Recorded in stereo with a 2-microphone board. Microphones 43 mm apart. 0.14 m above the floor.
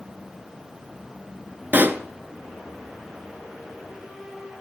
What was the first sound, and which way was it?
A pop, 50° right (ahead or behind).